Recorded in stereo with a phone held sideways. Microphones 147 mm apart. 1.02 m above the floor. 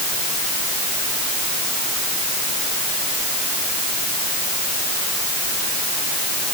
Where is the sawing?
No sawing in this recording.